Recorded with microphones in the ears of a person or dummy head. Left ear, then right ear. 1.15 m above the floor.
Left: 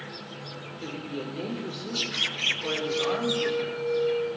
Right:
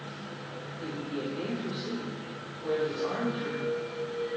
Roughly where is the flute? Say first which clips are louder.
Left 3 dB; left.